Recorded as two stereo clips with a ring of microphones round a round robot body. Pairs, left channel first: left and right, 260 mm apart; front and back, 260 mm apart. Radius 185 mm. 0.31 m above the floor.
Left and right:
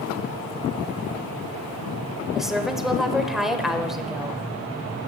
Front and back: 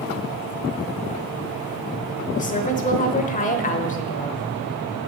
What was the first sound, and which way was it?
A woman speaking, 5° right.